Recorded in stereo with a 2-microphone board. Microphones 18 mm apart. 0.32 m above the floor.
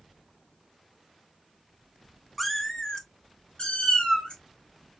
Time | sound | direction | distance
2.4 | a cat meowing | 10° left (ahead or behind) | 0.6 m